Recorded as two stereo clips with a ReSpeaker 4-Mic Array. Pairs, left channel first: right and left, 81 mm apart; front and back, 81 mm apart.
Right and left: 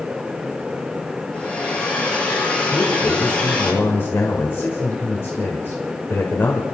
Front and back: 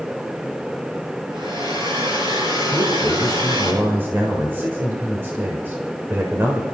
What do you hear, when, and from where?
1.3 s a hair dryer: 165° right, 6.5 m
2.7 s a man speaking: 135° right, 1.8 m